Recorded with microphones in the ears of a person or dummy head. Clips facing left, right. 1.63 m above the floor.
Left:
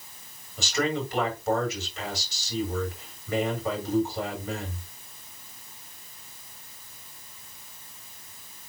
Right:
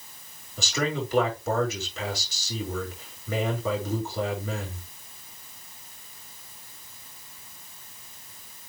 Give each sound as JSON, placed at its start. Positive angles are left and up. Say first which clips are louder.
{"t": 0.6, "sound": "a man speaking", "louder": "left 1 dB", "side_deg": -75, "distance_m": 5.0}